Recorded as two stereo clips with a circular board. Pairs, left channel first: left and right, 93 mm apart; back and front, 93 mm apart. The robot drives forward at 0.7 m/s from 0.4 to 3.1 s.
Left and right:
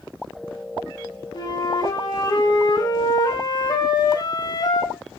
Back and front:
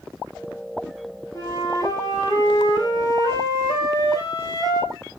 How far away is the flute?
About 5.5 m.